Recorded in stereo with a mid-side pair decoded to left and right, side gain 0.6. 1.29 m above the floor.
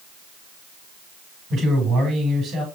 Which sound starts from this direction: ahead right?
A man speaking, at 1.5 s.